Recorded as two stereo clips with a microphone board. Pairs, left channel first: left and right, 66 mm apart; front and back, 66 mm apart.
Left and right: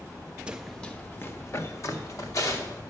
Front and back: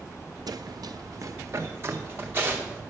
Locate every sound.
0.5 s running footsteps: 165° right, 0.8 m; by 2.8 s 120° left, 3 m